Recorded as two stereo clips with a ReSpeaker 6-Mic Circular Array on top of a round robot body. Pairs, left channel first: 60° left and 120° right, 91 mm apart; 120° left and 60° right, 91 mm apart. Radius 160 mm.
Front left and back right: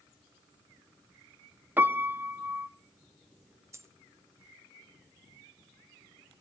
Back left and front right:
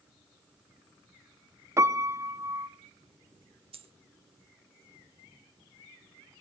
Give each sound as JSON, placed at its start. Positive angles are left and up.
{"t": 1.8, "sound": "a piano", "azimuth_deg": -70, "distance_m": 1.2}
{"t": 3.7, "sound": "a dropped coin", "azimuth_deg": -60, "distance_m": 1.0}